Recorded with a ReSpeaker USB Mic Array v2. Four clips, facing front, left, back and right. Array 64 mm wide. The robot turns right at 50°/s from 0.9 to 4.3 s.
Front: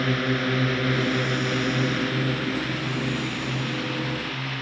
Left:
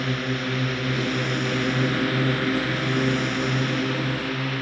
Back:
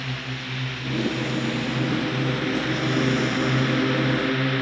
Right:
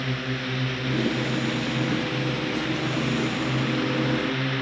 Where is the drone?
15° left; by 4.6 s 175° right.